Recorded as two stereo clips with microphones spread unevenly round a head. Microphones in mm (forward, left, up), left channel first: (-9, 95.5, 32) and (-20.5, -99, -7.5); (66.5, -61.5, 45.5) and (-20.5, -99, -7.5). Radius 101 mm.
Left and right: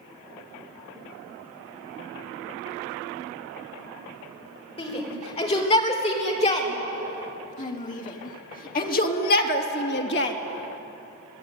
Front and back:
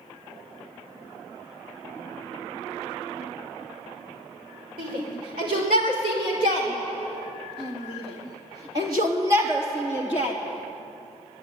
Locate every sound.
4.8 s a shout: 150° left, 6 m; by 10.4 s 115° left, 2.5 m